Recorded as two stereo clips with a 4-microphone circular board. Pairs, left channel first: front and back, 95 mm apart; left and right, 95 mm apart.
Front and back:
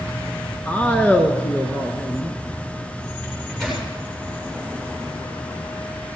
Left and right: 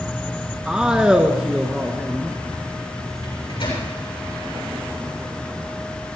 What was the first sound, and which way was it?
A man speaking, 30° right.